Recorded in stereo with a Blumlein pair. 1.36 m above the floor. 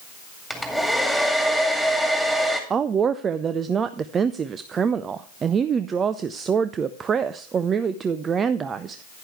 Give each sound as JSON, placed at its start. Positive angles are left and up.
{"t": 0.5, "sound": "a hair dryer", "azimuth_deg": -5, "distance_m": 2.0}
{"t": 2.7, "sound": "a woman speaking", "azimuth_deg": -20, "distance_m": 0.5}